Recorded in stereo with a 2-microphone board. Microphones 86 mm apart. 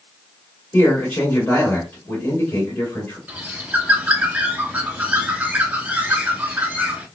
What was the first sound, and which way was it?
A man speaking, 25° left (ahead or behind).